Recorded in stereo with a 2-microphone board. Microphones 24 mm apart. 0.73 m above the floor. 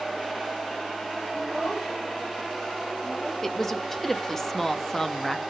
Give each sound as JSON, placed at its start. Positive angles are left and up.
{"t": 1.3, "sound": "a child speaking", "side_deg": 65, "distance_m": 2.0}
{"t": 3.4, "sound": "a woman speaking", "side_deg": 15, "distance_m": 0.5}